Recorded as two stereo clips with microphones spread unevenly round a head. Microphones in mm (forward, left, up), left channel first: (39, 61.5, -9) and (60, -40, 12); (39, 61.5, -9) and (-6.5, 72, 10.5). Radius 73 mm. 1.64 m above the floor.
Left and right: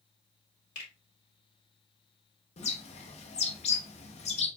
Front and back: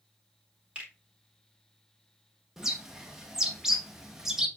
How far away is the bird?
About 0.8 m.